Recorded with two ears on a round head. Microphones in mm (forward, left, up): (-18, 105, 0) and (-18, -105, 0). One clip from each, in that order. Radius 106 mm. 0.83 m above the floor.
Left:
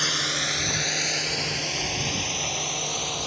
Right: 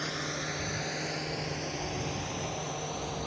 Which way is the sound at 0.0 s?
85° left.